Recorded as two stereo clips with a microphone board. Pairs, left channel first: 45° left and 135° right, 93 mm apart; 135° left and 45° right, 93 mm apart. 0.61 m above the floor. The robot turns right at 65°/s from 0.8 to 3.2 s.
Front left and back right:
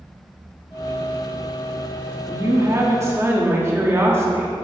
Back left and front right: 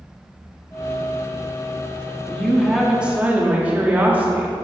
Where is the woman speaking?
165° right, 1.0 m; by 4.5 s 105° right, 1.0 m.